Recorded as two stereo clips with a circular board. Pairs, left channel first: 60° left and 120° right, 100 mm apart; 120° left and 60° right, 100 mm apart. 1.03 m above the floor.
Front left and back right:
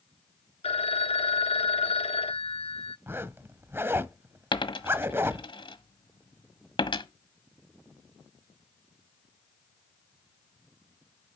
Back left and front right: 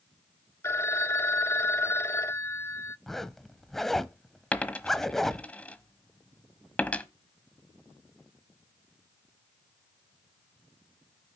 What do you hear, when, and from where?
0.6 s a phone ringing: 55° left, 0.6 m
3.1 s a zipper: 155° right, 0.9 m
4.5 s a dropped coin: 45° left, 1.3 m